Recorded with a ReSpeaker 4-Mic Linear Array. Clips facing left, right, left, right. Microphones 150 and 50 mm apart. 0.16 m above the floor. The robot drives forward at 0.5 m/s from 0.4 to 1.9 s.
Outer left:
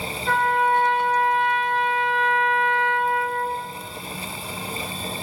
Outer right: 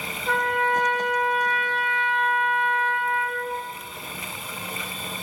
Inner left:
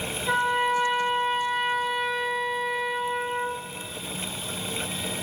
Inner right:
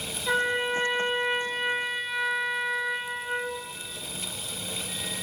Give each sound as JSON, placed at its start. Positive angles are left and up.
{"t": 0.3, "sound": "a trumpet", "side_deg": -20, "distance_m": 0.7}